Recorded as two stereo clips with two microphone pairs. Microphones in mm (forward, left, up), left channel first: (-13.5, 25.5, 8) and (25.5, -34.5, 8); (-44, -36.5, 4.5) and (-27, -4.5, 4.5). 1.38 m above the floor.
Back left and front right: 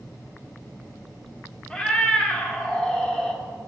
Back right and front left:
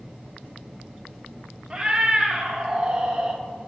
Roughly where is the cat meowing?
Ahead left.